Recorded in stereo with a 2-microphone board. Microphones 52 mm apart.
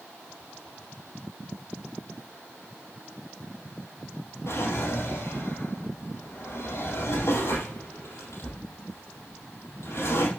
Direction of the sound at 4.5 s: 60° left (ahead or behind).